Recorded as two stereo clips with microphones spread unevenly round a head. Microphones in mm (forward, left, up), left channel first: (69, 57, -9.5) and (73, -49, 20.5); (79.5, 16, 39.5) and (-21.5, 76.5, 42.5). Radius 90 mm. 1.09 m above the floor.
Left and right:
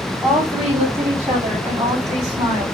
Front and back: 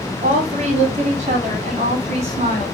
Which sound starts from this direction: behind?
A woman speaking, at 0.2 s.